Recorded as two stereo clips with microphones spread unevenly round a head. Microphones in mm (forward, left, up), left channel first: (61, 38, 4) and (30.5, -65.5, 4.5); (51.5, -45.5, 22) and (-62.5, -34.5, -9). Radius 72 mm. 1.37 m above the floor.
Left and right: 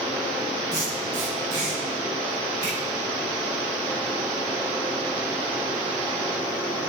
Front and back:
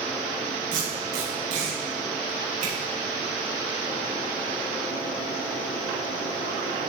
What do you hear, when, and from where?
0.7 s tape being pulled: 175° right, 7 m